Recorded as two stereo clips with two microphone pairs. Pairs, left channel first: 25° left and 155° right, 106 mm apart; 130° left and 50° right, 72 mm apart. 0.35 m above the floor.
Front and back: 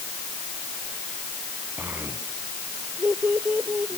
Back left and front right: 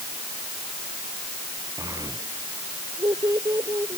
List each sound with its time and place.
1.8 s a child speaking: 85° right